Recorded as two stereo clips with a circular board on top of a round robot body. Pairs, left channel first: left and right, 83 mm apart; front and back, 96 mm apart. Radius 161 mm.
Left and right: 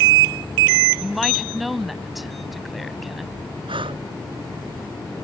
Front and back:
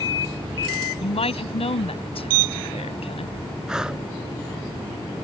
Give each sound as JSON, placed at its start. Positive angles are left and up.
{"t": 1.0, "sound": "a woman speaking", "azimuth_deg": 0}
{"t": 3.7, "sound": "breathing", "azimuth_deg": -95}